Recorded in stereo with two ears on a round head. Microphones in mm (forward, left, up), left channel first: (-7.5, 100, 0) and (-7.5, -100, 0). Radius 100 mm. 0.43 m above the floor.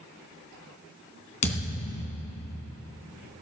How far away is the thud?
About 2 m.